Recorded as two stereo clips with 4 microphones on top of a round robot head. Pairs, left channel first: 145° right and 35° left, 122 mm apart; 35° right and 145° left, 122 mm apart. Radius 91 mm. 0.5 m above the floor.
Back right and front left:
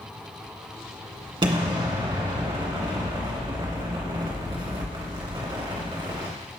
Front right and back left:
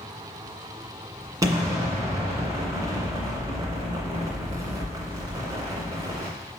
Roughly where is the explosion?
Left.